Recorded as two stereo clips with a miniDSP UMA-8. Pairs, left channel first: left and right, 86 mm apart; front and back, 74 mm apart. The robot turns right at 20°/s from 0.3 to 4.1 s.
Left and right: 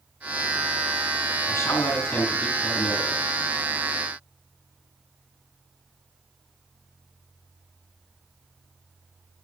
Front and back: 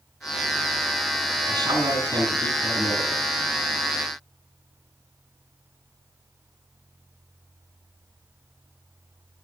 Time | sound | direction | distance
1.5 | a man speaking | 150° left | 5 m